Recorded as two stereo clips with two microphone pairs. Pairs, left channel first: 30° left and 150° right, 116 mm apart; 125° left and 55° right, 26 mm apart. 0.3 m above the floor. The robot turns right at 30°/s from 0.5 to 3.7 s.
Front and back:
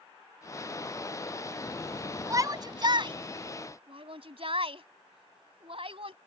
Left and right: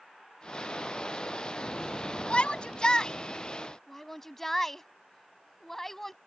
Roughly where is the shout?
Behind left.